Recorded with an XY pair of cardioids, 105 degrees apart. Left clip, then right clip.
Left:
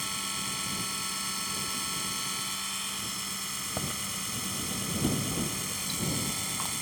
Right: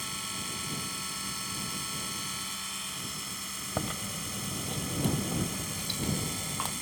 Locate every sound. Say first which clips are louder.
0.0 s a machine running: left 3 dB; 20° left
3.8 s chewing: left 1 dB; 25° right